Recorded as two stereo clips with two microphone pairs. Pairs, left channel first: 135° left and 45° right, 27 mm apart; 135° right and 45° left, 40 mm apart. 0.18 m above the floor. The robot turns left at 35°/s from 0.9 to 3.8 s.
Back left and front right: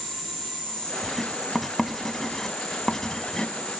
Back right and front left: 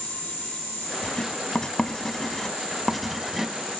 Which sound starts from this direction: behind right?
Writing, at 1.0 s.